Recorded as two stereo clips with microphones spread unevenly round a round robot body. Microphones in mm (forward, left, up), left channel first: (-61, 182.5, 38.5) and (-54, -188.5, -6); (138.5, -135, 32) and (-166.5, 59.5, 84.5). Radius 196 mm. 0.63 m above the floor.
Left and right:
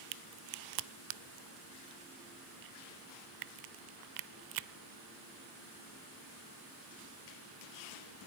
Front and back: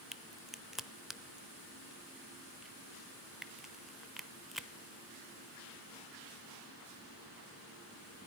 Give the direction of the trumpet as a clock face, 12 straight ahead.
I don't hear a trumpet.